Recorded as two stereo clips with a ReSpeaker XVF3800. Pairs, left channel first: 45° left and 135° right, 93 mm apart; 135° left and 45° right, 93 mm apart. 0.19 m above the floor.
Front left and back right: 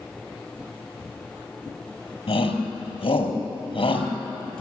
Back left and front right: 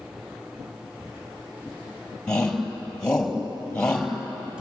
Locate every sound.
2.3 s a shout: 55° left, 4.5 m